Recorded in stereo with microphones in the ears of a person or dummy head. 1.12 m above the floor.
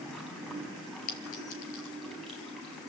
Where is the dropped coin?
50° left (ahead or behind), 4.5 m.